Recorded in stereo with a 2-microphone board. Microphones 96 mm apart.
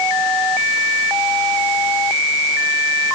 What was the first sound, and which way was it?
Only background noise.